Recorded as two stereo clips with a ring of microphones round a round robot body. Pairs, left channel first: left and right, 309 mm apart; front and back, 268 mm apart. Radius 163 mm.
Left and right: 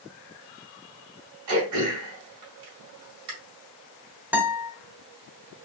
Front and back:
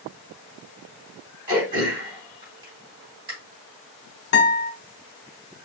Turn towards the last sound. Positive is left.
turn(degrees=-10)